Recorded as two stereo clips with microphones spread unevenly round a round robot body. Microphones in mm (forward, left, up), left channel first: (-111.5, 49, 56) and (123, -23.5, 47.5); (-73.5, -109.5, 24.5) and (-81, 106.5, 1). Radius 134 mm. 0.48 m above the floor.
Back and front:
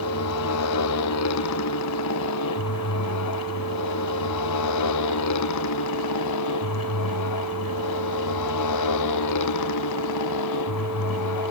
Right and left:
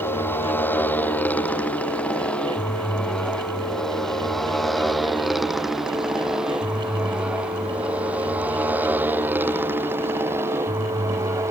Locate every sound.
0.0 s a motorcycle: 170° right; by 11.5 s 170° left